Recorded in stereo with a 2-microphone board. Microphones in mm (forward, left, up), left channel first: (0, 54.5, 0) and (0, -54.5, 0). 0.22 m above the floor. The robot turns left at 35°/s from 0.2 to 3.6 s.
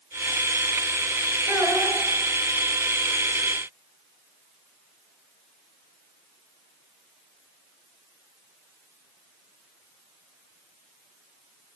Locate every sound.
1.5 s a child speaking: 25° right (ahead or behind), 2.0 m; by 2.0 s 40° right (ahead or behind), 2.0 m